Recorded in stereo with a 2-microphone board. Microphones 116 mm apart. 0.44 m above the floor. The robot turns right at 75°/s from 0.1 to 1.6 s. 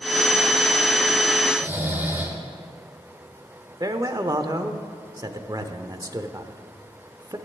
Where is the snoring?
10° right (ahead or behind), 1.8 m; by 2.4 s 20° right (ahead or behind), 1.8 m.